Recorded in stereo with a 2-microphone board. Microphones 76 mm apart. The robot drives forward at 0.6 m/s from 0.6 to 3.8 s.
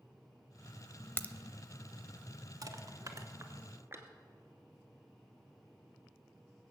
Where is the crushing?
55° right (ahead or behind), 1.0 m; by 4.1 s 30° right (ahead or behind), 1.5 m.